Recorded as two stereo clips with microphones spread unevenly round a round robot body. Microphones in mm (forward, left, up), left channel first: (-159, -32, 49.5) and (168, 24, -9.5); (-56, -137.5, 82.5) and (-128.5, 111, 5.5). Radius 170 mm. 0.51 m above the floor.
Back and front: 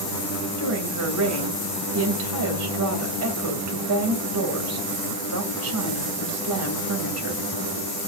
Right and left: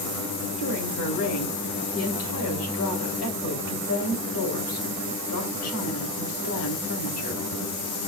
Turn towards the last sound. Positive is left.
turn(degrees=-30)